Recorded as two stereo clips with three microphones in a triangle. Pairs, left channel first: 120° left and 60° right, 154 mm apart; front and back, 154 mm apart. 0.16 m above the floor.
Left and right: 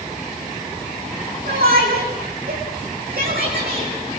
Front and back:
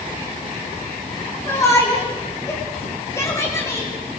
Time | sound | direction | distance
1.5 | a shout | 70° right | 8.5 m